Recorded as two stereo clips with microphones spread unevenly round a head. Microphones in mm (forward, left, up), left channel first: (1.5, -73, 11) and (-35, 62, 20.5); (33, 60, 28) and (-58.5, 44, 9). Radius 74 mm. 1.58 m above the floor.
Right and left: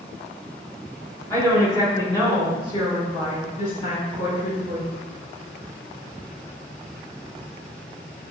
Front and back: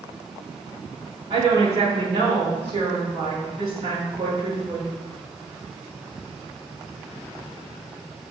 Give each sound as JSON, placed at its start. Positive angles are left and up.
{"t": 1.3, "sound": "a woman speaking", "azimuth_deg": -145, "distance_m": 3.0}